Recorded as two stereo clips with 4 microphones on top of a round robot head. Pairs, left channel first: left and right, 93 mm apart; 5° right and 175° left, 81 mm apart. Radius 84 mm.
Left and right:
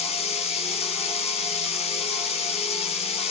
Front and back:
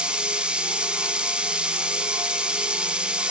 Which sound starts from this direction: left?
Running water, at 0.0 s.